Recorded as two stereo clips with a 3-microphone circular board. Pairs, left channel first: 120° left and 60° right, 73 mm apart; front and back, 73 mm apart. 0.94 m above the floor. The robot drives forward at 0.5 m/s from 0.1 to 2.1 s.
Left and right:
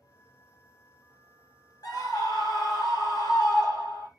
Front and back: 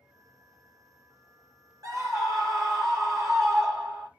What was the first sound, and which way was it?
A scream, 145° left.